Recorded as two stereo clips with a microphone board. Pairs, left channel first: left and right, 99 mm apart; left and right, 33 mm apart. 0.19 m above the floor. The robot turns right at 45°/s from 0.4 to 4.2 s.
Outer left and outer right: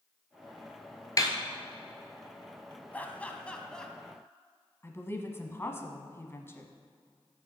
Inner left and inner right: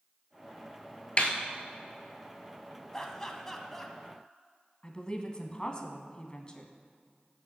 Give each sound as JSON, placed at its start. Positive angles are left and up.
{"t": 1.2, "sound": "a snare drum", "side_deg": 35, "distance_m": 1.1}
{"t": 2.9, "sound": "laughter", "side_deg": 15, "distance_m": 1.0}
{"t": 4.8, "sound": "a woman speaking", "side_deg": 25, "distance_m": 1.1}